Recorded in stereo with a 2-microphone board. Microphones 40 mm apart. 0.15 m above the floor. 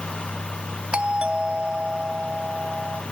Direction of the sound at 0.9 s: 25° right (ahead or behind).